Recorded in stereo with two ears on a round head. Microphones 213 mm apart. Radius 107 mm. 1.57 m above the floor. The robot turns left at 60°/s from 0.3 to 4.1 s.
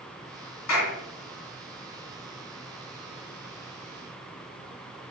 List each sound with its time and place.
0.7 s a clap: 80° left, 3.5 m; by 1.0 s 85° left, 3.5 m